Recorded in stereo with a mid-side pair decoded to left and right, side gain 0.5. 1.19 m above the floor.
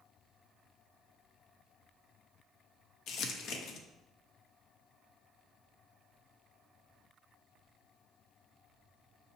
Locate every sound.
3.1 s crumpling: 65° left, 0.6 m